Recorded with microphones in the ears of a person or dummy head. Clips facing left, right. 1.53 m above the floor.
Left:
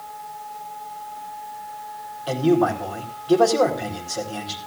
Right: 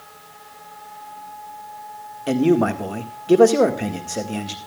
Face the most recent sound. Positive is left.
turn(degrees=-30)  # may be behind; listen again after turning